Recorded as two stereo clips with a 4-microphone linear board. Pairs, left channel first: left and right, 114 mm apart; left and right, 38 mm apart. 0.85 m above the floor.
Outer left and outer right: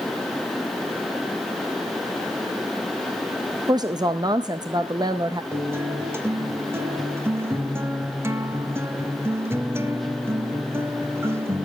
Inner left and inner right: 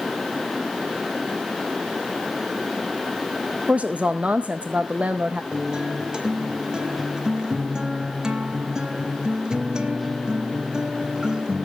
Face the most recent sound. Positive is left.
turn(degrees=-20)  # may be behind; listen again after turning